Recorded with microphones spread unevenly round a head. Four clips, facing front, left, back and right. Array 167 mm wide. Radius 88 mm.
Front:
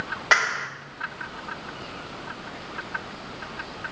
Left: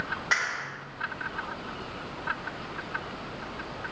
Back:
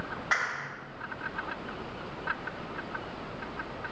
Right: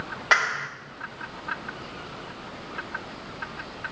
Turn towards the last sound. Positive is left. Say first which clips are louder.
# right 8 dB, front 9 dB
turn(degrees=-30)